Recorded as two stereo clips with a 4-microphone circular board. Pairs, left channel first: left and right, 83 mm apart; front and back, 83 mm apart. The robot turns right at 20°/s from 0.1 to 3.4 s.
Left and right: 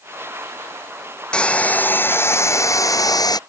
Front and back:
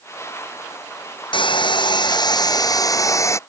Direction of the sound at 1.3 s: 10° left.